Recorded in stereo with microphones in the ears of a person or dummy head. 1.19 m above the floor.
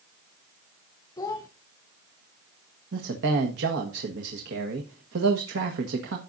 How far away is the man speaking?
About 1.4 m.